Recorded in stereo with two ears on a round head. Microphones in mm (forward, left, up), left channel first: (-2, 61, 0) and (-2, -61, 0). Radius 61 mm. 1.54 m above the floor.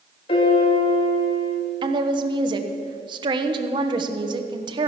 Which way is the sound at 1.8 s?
35° right (ahead or behind).